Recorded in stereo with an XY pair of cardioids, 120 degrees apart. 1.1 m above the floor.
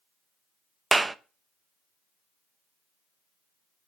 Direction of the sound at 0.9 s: 15° right.